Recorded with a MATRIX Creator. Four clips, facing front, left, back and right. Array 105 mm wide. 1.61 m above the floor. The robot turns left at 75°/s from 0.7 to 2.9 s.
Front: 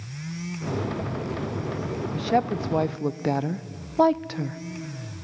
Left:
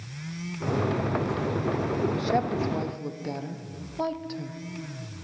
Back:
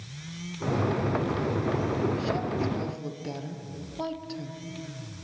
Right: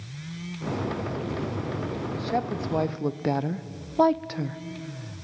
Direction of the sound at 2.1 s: 25° left.